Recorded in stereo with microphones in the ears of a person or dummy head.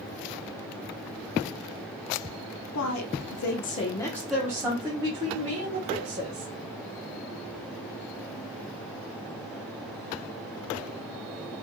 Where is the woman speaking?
80° left, 1.1 m; by 6.5 s 40° right (ahead or behind), 2.5 m.